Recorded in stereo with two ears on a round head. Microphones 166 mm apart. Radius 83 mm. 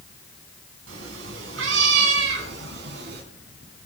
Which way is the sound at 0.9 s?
85° right.